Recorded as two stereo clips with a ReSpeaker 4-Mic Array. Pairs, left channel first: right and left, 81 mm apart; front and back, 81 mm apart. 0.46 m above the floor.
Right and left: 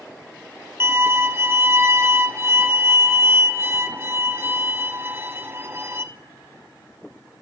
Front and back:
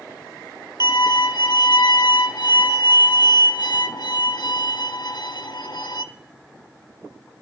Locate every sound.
0.8 s a violin: 30° left, 0.8 m